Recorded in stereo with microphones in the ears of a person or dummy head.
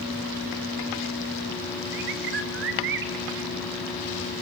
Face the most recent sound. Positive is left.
turn(degrees=-70)  # may be behind; listen again after turning